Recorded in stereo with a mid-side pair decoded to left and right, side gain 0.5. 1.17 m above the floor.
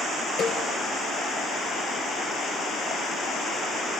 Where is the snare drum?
65° left, 5 m.